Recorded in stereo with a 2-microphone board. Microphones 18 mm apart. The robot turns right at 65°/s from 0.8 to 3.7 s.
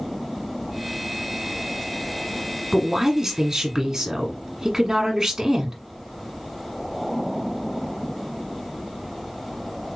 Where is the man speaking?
10° right (ahead or behind), 1.3 m; by 5.8 s 30° right (ahead or behind), 1.3 m.